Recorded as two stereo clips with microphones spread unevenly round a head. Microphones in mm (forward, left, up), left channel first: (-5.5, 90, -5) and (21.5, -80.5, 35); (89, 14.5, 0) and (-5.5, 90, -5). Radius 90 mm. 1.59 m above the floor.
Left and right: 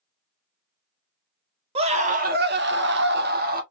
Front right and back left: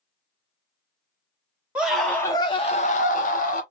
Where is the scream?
135° right, 1.0 m; by 3.6 s 45° right, 1.1 m.